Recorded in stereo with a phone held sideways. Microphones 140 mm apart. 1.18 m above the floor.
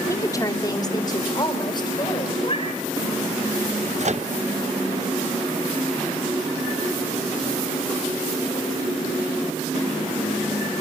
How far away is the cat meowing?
About 3 m.